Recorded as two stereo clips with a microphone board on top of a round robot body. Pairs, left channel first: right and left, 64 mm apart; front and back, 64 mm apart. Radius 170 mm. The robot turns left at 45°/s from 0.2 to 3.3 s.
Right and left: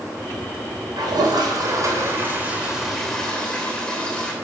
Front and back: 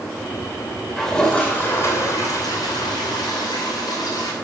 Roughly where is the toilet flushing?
Left.